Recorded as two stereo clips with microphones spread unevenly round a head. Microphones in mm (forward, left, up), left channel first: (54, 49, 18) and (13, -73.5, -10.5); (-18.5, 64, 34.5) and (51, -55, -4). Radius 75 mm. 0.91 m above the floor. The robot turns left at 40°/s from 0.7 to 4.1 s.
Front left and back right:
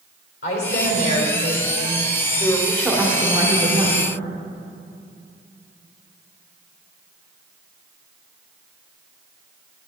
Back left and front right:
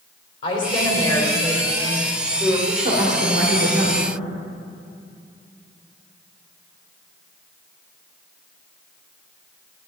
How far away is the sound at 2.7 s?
About 2 m.